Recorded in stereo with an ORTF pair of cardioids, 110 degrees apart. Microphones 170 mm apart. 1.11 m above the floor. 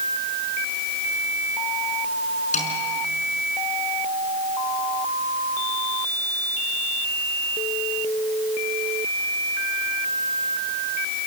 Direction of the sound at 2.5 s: 45° left.